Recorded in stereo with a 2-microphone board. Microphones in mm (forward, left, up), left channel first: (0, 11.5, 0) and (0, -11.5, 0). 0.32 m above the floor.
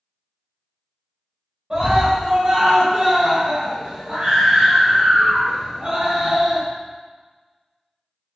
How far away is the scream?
About 1.5 m.